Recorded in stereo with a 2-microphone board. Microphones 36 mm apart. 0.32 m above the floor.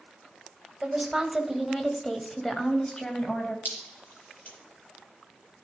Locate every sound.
0.8 s a woman speaking: 15° right (ahead or behind), 1.9 m; by 3.5 s 35° left (ahead or behind), 2.5 m
3.6 s dripping: 50° left (ahead or behind), 5.5 m